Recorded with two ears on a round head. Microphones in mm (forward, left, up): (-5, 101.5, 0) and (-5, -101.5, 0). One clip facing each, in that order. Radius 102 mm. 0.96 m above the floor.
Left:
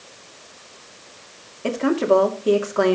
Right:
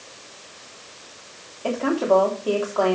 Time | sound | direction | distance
1.6 | a woman speaking | 30° left (ahead or behind) | 2.5 m